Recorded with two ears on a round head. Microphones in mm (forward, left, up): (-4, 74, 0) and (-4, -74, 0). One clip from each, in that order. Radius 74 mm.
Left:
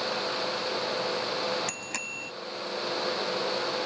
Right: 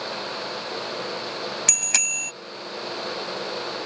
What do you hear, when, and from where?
1.7 s a bicycle bell: 85° right